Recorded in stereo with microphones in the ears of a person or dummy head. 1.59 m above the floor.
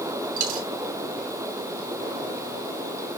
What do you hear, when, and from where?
0.4 s a dropped coin: 40° right (ahead or behind), 1.4 m